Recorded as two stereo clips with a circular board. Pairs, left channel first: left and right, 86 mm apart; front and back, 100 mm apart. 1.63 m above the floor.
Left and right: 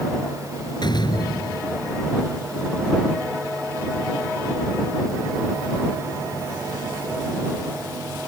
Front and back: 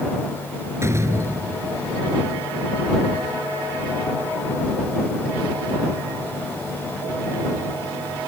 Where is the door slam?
120° left.